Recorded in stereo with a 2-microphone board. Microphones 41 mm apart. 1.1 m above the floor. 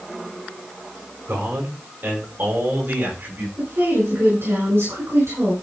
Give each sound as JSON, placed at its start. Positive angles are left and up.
{"t": 1.3, "sound": "a man speaking", "side_deg": -60, "distance_m": 4.5}
{"t": 3.6, "sound": "a woman speaking", "side_deg": -80, "distance_m": 5.5}